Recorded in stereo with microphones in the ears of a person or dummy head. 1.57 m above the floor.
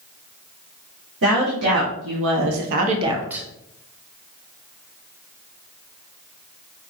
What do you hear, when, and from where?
1.2 s a woman speaking: 70° right (ahead or behind), 1.7 m; by 3.4 s 5° right (ahead or behind), 0.8 m